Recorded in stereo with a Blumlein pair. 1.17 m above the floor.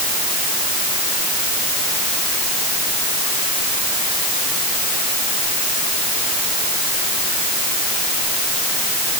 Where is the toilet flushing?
I don't hear a toilet flushing.